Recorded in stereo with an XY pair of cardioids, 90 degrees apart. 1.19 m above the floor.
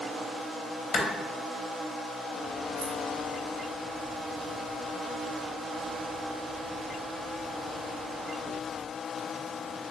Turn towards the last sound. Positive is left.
turn(degrees=-65)